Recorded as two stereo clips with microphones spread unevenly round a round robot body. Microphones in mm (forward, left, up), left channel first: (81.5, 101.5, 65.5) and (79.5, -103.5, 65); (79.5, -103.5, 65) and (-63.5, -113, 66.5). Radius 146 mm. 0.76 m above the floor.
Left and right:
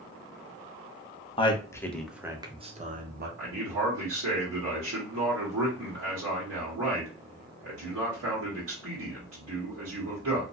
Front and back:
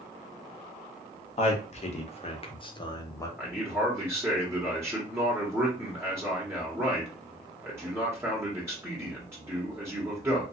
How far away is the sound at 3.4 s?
About 1.4 m.